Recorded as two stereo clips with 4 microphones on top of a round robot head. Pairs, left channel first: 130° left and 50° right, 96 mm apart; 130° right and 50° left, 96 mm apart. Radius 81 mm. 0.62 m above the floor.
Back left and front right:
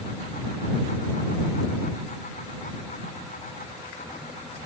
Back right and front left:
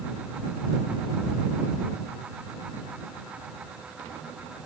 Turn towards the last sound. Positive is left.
No sound to turn to.